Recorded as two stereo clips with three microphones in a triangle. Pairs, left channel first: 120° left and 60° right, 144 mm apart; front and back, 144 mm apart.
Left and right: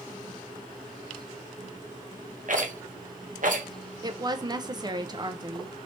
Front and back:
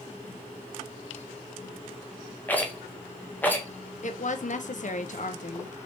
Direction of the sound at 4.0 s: Straight ahead.